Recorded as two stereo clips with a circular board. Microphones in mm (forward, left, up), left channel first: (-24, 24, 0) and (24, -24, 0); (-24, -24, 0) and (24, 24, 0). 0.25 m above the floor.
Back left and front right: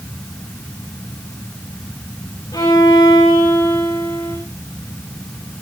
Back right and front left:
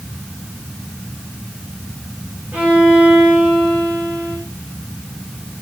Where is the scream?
I don't hear a scream.